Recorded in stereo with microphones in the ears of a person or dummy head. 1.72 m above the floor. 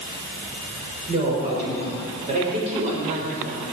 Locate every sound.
1.1 s a woman speaking: 40° right (ahead or behind), 5.5 m